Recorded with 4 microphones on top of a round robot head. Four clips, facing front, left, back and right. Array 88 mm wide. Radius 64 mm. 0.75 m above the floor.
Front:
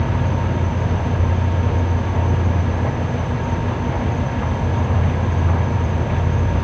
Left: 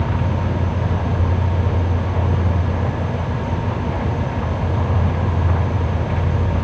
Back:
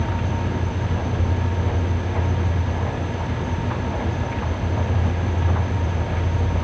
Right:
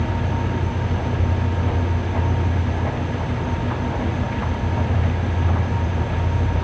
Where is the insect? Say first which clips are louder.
Left 2 dB, front 4 dB; 60° left, 1.0 m.